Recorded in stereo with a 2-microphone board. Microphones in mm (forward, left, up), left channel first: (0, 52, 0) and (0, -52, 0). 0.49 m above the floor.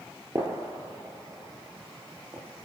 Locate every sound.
0.3 s a gunshot: 30° right (ahead or behind), 6.5 m